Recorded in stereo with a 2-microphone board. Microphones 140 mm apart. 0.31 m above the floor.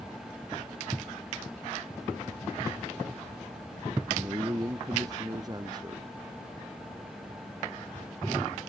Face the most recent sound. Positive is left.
turn(degrees=-30)  # may be behind; listen again after turning